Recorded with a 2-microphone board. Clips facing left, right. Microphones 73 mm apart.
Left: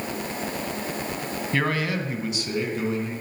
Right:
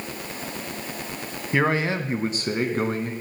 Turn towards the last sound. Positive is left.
turn(degrees=-50)  # may be behind; listen again after turning